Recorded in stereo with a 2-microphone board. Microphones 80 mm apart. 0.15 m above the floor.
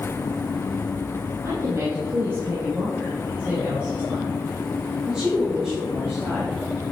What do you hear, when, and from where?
1.4 s a woman speaking: 40° right (ahead or behind), 4 m; by 6.6 s centre (ahead or behind), 5.5 m